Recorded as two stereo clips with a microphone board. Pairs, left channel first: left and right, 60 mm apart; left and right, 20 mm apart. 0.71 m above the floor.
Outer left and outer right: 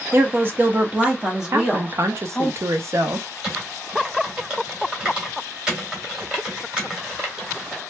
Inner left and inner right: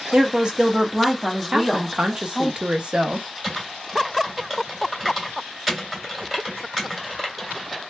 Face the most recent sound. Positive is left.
turn(degrees=-10)  # may be behind; listen again after turning